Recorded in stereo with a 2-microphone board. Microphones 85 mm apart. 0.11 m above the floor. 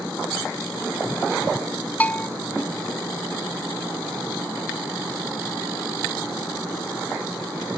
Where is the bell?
20° left (ahead or behind).